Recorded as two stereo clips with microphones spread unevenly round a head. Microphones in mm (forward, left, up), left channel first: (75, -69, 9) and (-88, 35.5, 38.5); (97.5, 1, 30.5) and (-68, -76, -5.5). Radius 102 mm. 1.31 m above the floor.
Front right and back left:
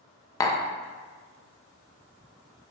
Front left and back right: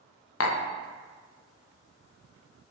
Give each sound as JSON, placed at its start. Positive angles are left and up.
{"t": 0.4, "sound": "tapping", "azimuth_deg": 35, "distance_m": 0.9}